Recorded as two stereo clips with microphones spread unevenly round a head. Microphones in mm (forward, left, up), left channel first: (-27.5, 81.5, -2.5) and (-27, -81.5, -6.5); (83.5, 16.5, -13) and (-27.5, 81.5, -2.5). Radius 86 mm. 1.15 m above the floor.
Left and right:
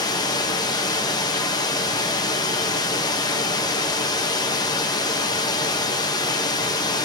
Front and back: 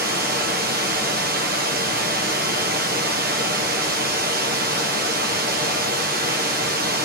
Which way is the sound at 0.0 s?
155° left.